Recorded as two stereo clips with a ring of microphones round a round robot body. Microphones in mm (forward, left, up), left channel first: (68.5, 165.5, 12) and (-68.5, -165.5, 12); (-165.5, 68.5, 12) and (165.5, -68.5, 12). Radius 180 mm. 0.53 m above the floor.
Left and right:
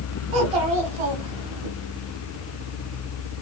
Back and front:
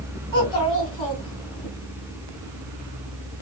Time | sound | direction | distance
0.3 | a child speaking | 125° right | 2.5 m